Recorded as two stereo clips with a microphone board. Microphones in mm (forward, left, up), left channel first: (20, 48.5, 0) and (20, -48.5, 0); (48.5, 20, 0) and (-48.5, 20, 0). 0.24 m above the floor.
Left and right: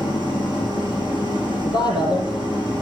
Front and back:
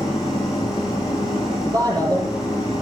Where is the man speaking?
130° left, 8 m.